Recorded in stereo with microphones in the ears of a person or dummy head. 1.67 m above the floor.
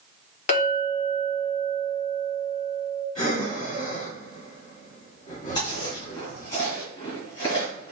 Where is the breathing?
40° left (ahead or behind), 2.5 m.